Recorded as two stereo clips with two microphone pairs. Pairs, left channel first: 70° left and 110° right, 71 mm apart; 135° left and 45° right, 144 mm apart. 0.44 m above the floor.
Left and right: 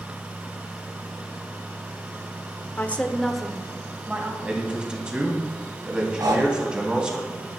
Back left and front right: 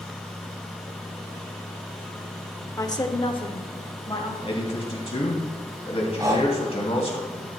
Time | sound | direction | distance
2.8 | a woman speaking | 90° left | 0.9 m
4.4 | a man speaking | 175° left | 2.5 m
6.2 | breathing | 105° right | 1.8 m